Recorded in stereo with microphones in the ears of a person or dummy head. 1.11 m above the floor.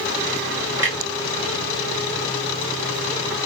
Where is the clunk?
10° right (ahead or behind), 0.6 m.